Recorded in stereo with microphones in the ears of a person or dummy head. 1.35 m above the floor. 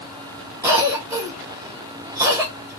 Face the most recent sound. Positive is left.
turn(degrees=-15)  # may be behind; listen again after turning